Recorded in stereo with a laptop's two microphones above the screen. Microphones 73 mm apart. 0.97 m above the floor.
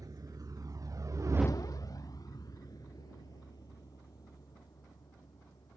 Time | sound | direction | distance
0.0 | a vehicle | 60° right (ahead or behind) | ?